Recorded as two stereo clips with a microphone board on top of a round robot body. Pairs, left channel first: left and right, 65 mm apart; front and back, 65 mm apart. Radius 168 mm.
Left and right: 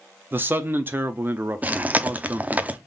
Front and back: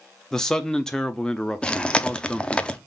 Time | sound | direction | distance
0.3 | a man speaking | 75° right | 0.8 m
1.6 | chewing | 55° right | 0.9 m